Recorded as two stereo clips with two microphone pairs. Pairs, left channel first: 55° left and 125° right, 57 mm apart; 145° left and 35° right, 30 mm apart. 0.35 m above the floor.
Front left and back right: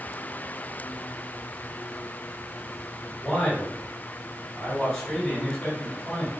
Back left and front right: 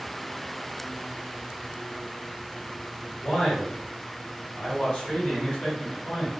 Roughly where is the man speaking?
Behind left.